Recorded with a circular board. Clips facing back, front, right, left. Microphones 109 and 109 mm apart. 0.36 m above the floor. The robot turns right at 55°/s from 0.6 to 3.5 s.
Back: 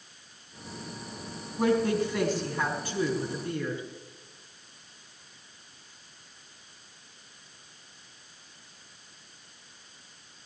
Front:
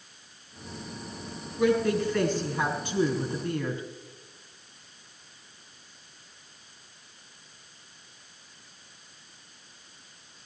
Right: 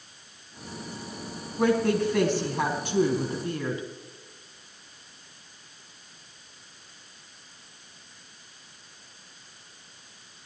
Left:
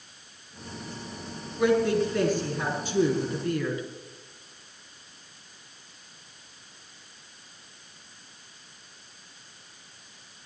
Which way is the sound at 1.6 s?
140° right.